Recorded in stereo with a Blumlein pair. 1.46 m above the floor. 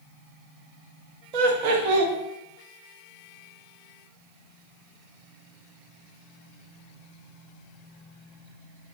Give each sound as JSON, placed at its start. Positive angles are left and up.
{"t": 1.3, "sound": "laughter", "azimuth_deg": -45, "distance_m": 0.8}